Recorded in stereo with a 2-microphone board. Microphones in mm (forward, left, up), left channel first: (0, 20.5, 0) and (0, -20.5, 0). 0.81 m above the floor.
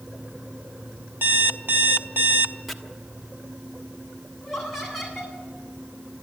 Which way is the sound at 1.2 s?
55° right (ahead or behind).